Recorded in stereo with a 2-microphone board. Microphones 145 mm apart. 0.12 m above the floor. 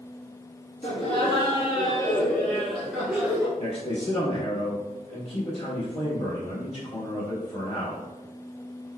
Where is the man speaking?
40° left (ahead or behind), 1.8 m.